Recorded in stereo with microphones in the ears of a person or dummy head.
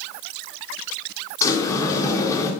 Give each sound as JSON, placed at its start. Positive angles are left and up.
{"t": 1.4, "sound": "a sliding door", "side_deg": 15, "distance_m": 3.0}